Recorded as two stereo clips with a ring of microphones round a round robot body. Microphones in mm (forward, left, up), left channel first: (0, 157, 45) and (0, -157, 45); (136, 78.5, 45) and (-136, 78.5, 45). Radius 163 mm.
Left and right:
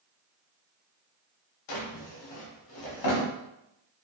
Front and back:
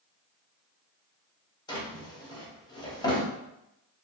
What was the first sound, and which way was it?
A drawer, 75° left.